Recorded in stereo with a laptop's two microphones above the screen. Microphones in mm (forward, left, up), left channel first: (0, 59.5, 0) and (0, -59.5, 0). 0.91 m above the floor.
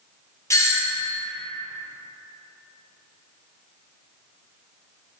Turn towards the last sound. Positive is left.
turn(degrees=25)  # may be behind; listen again after turning